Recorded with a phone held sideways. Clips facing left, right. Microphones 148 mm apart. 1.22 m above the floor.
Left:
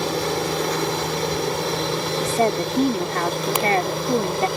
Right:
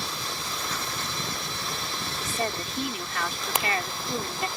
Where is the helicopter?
70° left (ahead or behind); by 4.6 s 75° left (ahead or behind).